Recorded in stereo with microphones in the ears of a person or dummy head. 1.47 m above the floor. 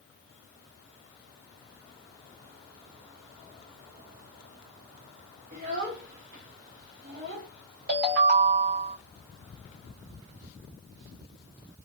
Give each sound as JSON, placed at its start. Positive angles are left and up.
{"t": 5.5, "sound": "a child speaking", "side_deg": -40, "distance_m": 0.9}
{"t": 7.9, "sound": "a ringtone", "side_deg": -55, "distance_m": 1.4}